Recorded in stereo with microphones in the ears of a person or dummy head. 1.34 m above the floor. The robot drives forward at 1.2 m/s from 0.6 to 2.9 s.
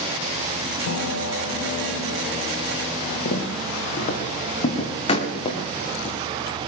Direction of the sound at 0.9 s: 85° left.